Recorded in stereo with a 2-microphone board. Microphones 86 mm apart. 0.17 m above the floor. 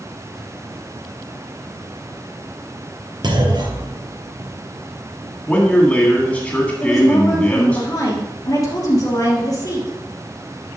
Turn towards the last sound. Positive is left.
turn(degrees=45)  # may be behind; listen again after turning